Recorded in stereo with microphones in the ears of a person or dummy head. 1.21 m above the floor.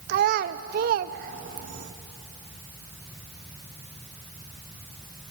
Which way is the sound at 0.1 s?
45° right (ahead or behind).